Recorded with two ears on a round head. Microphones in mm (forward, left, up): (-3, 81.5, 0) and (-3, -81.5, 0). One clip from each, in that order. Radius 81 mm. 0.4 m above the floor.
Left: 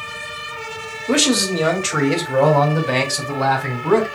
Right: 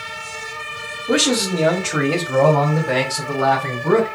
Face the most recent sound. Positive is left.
turn(degrees=70)  # may be behind; listen again after turning